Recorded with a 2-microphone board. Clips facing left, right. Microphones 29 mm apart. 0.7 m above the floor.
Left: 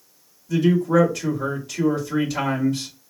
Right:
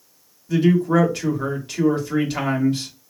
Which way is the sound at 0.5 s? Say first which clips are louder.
Right 1 dB; 40° right (ahead or behind).